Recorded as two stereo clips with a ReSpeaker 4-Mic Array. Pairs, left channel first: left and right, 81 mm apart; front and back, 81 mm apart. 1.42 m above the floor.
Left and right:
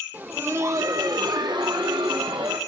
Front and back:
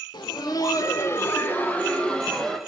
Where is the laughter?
25° right, 1.5 m; by 2.6 s 80° right, 2.5 m.